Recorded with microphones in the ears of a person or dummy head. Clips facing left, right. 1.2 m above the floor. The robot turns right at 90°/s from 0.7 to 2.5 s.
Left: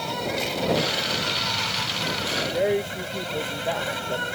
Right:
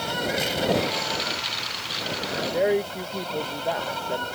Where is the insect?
10° right; by 4.4 s 155° left.